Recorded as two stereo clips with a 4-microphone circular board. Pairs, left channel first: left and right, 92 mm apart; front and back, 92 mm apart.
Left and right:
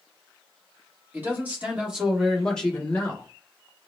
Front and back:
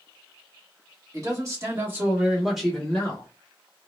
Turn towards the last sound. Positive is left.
turn(degrees=45)